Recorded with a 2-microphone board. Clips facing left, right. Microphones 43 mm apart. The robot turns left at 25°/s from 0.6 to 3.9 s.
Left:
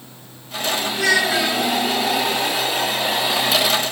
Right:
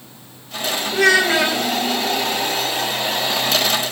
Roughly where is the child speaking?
Right.